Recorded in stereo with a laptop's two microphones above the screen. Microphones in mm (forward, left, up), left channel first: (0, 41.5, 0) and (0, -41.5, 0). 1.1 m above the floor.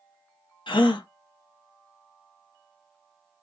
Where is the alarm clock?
No alarm clock in this recording.